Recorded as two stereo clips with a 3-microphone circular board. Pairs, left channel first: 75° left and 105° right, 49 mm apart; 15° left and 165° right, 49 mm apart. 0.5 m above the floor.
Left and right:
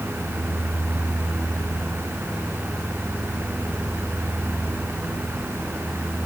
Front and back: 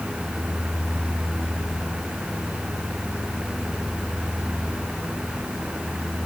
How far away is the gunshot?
No gunshot in this recording.